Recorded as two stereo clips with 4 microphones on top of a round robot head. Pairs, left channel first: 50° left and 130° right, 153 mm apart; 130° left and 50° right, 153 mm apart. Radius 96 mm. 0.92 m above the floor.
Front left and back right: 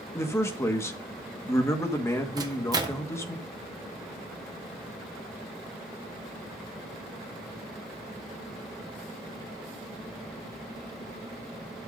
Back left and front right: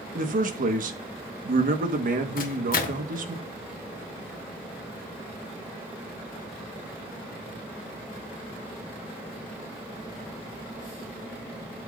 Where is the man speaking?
25° right, 1.5 m.